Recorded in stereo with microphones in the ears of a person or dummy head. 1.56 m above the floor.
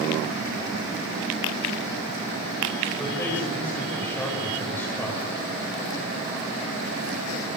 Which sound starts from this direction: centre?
A man speaking, at 3.0 s.